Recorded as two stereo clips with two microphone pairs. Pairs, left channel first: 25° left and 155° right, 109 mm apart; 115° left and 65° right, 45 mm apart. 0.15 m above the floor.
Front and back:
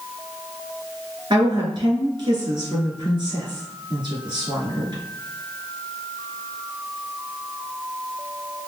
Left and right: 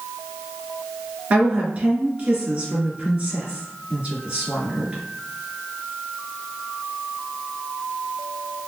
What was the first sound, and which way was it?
A woman speaking, 120° right.